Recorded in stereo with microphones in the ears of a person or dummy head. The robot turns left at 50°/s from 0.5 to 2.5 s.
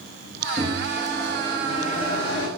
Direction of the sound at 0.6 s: 145° right.